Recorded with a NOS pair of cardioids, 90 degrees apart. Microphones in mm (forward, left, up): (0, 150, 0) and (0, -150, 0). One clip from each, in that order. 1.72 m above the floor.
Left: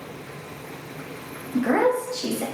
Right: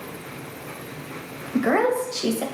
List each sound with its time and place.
1.5 s a woman speaking: 30° right, 0.7 m